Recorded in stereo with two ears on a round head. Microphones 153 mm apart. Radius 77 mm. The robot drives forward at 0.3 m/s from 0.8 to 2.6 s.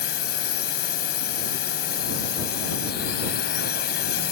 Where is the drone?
65° left (ahead or behind).